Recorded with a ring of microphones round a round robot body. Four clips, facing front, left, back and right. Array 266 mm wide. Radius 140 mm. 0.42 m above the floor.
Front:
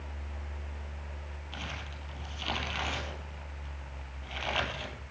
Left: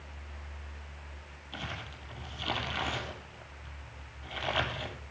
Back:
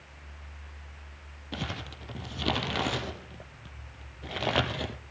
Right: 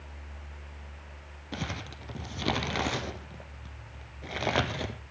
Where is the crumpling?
130° right, 2 m.